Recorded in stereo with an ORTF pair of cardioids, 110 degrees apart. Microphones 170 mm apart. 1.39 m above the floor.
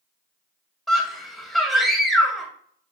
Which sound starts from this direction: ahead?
A scream, at 0.9 s.